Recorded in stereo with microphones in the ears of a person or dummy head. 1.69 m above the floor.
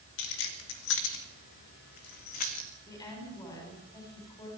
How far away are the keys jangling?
About 2.5 m.